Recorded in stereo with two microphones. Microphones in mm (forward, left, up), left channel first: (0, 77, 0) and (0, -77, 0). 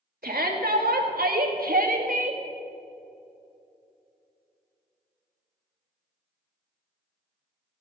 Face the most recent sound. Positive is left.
turn(degrees=-60)  # may be behind; listen again after turning